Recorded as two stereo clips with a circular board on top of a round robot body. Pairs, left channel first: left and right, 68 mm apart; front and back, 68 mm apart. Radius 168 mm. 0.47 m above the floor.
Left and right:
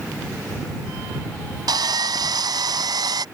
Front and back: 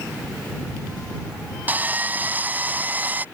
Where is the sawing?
115° right.